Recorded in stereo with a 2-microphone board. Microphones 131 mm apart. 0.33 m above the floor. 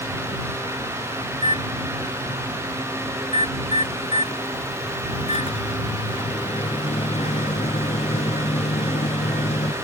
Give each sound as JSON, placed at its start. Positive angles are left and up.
{"t": 1.3, "sound": "a microwave", "side_deg": 55}